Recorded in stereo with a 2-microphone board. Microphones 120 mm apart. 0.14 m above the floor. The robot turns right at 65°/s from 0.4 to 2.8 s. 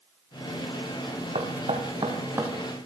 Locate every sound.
1.4 s knocking: 80° right, 3.5 m; by 2.5 s 10° right (ahead or behind), 3.5 m